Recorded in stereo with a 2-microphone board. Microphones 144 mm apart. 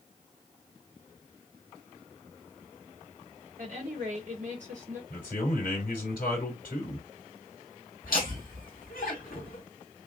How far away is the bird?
I don't hear a bird.